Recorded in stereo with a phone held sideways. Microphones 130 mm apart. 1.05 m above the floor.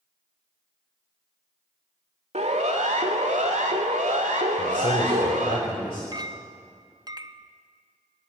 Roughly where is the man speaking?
Left.